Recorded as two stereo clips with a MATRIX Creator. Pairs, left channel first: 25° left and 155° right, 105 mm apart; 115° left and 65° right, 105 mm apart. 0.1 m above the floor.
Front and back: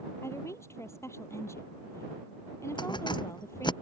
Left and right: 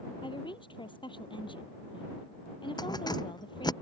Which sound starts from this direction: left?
A woman speaking, at 0.2 s.